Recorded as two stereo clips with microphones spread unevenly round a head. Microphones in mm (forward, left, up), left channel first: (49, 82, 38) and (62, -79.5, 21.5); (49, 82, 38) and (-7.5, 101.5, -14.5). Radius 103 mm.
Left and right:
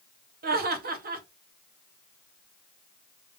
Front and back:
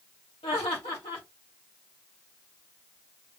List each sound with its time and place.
0.4 s laughter: 75° right, 1.3 m